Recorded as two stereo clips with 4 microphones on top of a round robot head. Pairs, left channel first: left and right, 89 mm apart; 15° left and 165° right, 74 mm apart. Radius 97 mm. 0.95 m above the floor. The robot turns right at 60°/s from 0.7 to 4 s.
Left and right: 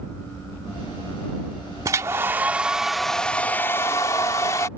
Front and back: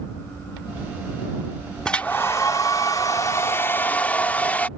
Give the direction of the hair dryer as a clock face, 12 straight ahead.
2 o'clock.